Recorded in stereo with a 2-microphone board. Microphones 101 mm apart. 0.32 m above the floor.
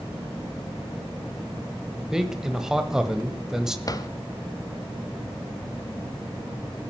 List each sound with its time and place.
2.1 s a man speaking: 5° right (ahead or behind), 1.2 m
3.9 s a drawer: 35° left (ahead or behind), 0.9 m